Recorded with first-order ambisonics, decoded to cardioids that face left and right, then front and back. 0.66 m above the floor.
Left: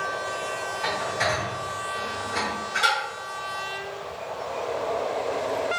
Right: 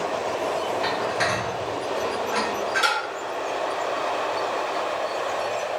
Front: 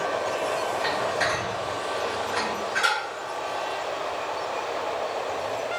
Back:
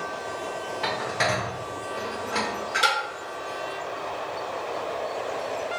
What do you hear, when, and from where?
0.8 s dishes clattering: 170° right, 1.0 m